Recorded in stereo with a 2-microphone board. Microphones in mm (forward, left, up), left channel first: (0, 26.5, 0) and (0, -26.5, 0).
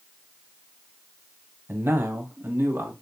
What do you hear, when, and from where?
1.7 s a man speaking: 50° right (ahead or behind), 1.3 m; by 2.9 s 55° right (ahead or behind), 1.6 m